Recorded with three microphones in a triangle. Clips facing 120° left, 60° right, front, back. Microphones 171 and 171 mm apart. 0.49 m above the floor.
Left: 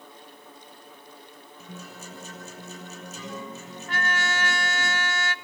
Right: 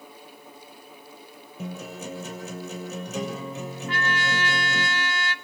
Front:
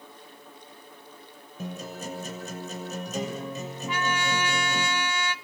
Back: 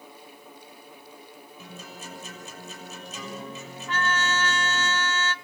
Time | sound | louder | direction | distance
1.6 | a guitar | right 9 dB, front 9 dB | 45° right | 6.5 m
3.9 | a trumpet | even, back 1 dB | 80° left | 0.8 m